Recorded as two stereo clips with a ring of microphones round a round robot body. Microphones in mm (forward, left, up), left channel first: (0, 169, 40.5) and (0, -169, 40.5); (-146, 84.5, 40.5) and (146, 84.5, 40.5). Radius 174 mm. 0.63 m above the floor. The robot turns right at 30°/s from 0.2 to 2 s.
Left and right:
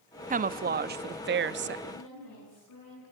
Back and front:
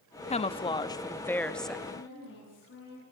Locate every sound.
0.3 s a woman speaking: 135° right, 0.7 m; by 1.8 s 90° right, 0.7 m
1.9 s a woman speaking: 130° left, 9.5 m; by 3.0 s 135° left, 9.5 m